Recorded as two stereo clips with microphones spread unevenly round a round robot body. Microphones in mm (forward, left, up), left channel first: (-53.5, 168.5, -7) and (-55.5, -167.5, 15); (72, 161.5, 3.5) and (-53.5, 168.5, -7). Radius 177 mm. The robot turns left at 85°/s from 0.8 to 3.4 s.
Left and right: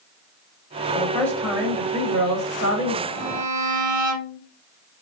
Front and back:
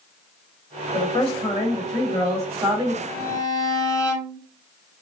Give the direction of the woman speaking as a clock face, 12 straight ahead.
11 o'clock.